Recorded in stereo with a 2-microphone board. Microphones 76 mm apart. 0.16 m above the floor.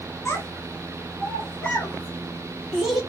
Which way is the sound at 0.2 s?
35° left (ahead or behind).